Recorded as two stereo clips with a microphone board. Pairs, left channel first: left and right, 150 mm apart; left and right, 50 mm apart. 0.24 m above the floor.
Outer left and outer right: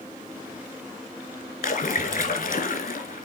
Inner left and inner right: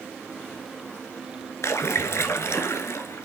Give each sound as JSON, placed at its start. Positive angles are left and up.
{"t": 1.6, "sound": "a splash", "side_deg": 65, "distance_m": 0.9}